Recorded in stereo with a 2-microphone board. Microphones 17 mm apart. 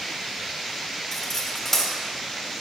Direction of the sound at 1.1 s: 30° left (ahead or behind).